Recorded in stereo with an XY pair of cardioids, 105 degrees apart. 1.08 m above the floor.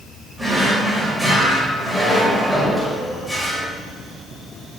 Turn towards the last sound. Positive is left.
turn(degrees=-10)